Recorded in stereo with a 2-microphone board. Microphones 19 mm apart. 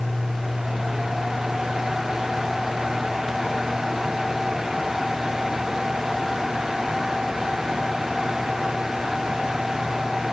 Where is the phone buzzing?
I don't hear a phone buzzing.